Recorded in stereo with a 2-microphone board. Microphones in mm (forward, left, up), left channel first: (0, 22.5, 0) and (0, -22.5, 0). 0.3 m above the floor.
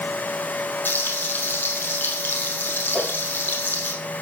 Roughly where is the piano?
No piano in this recording.